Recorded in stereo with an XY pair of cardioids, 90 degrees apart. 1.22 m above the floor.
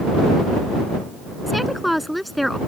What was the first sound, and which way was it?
A woman speaking, straight ahead.